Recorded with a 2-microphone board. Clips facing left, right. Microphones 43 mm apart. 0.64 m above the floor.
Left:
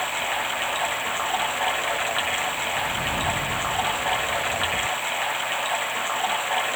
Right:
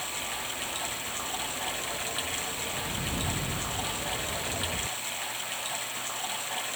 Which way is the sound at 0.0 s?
35° left (ahead or behind).